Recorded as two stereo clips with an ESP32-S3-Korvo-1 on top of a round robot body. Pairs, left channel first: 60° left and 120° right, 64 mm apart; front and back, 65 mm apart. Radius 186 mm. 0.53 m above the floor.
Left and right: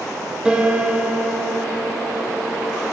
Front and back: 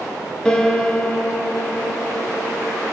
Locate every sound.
0.5 s a piano: 65° right, 0.9 m